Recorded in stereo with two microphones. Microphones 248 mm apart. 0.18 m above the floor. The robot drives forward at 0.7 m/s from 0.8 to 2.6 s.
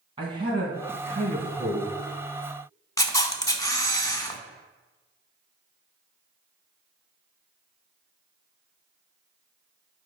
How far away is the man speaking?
About 1.8 m.